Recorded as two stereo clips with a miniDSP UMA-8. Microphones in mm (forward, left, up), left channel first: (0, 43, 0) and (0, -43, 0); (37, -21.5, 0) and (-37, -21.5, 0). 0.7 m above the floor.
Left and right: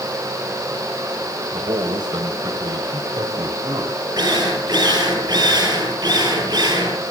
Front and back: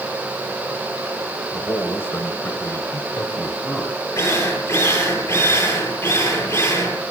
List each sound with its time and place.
1.5 s a man speaking: 65° right, 3 m; by 4.0 s 45° right, 4 m
4.2 s a drill: 45° right, 9.5 m